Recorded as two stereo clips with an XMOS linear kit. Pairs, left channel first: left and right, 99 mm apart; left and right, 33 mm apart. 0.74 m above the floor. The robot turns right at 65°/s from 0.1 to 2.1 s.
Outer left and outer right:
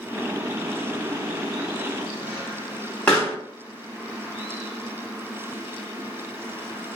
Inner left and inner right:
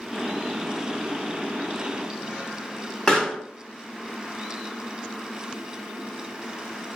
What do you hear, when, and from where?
3.1 s a pop: 15° left (ahead or behind), 1.8 m